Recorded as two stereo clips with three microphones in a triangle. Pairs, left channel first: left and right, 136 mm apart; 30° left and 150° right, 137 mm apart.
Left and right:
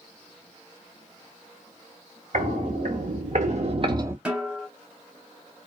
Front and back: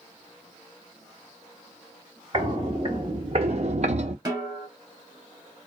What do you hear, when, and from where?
2.3 s footsteps: 95° right, 1.5 m; by 4.2 s 160° right, 0.5 m
4.2 s a snare drum: 165° right, 1.1 m